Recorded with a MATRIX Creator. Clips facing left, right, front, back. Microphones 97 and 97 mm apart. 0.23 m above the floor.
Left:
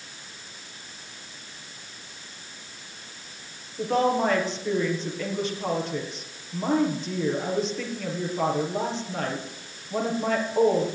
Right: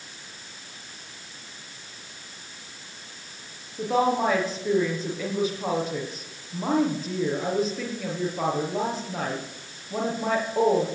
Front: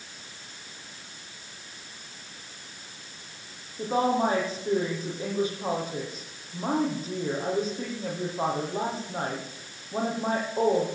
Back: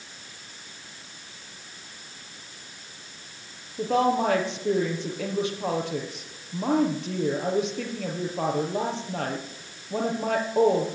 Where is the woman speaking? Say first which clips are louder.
Even, back 2 dB; 175° right, 5 m.